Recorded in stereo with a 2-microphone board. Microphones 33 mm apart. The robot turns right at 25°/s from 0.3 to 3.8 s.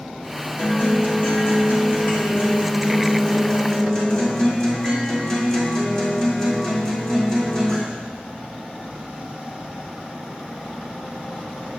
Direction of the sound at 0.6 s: 90° left.